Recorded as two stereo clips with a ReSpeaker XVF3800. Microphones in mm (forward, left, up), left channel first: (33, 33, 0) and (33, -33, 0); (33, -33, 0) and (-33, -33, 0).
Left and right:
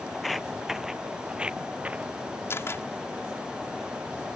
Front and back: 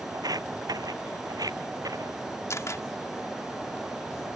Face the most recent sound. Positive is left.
turn(degrees=40)